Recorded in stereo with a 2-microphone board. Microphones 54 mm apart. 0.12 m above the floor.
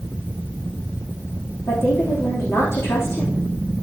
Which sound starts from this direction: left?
A woman speaking, at 1.7 s.